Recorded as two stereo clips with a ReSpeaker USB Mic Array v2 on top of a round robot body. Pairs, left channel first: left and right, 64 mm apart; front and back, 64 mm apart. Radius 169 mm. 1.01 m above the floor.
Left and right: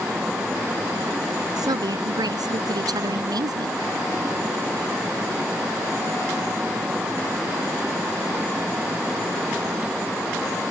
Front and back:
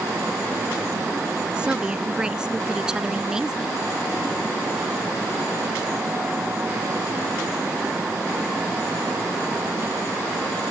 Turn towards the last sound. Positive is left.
turn(degrees=-100)